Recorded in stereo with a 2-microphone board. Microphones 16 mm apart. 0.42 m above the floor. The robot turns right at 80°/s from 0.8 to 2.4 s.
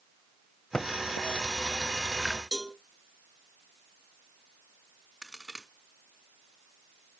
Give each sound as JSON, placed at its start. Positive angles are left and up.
{"t": 0.7, "sound": "typing on a keyboard", "side_deg": 50, "distance_m": 1.0}
{"t": 2.5, "sound": "a cowbell", "side_deg": -10, "distance_m": 3.0}
{"t": 5.2, "sound": "a crack", "side_deg": -10, "distance_m": 2.0}